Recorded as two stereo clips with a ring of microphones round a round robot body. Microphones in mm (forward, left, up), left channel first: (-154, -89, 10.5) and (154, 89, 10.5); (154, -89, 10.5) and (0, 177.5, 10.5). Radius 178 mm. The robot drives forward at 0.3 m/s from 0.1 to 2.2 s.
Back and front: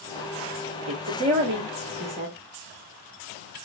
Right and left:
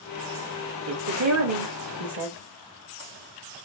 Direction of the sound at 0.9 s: 80° left.